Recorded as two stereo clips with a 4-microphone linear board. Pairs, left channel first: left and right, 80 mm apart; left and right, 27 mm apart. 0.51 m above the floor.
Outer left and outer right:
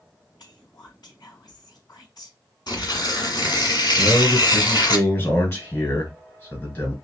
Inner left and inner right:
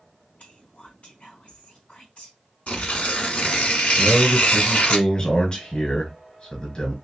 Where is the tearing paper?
65° left (ahead or behind), 1.4 m.